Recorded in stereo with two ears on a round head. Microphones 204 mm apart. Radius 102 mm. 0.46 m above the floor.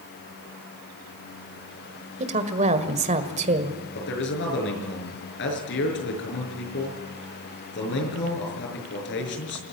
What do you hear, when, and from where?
2.2 s a woman speaking: 30° right (ahead or behind), 1.7 m
4.0 s a man speaking: 55° left (ahead or behind), 6 m